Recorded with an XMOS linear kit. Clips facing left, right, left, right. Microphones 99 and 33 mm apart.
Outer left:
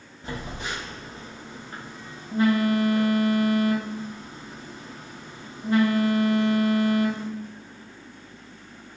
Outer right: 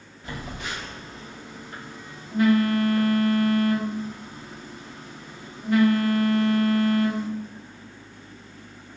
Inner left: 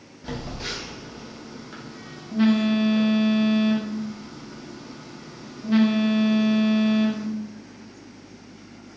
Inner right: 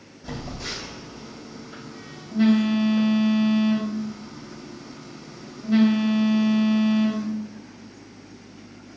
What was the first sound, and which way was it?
A phone buzzing, 30° left (ahead or behind).